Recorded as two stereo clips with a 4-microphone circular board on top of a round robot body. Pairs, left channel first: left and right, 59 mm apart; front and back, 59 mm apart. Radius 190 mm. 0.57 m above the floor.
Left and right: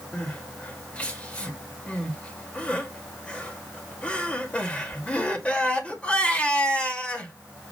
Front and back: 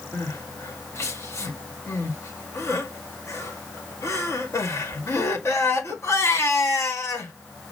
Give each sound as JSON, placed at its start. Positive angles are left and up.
{"t": 0.1, "sound": "crying", "azimuth_deg": 25, "distance_m": 1.9}